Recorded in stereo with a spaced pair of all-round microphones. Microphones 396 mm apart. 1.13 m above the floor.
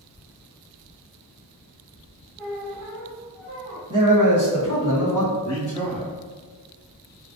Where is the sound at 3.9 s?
50° right (ahead or behind), 0.8 m.